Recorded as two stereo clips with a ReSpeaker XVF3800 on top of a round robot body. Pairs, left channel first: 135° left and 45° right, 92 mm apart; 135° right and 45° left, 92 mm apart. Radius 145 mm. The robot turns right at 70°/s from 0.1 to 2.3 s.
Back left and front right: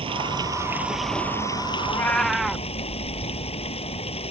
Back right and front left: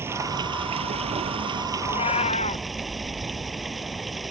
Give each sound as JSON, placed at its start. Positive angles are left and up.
{"t": 0.0, "sound": "running water", "azimuth_deg": -20}
{"t": 1.8, "sound": "a cat meowing", "azimuth_deg": -170}